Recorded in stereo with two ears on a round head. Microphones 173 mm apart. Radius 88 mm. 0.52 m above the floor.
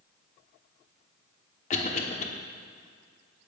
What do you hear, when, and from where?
1.7 s a cough: 40° left (ahead or behind), 1.1 m